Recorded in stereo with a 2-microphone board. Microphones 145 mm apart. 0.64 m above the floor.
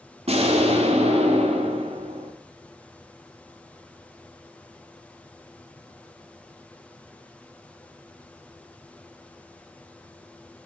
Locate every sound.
0.3 s an explosion: 45° right (ahead or behind), 1.7 m